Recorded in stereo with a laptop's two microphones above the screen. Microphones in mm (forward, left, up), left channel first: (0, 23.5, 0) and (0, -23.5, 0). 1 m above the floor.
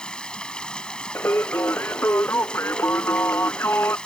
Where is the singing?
55° left (ahead or behind).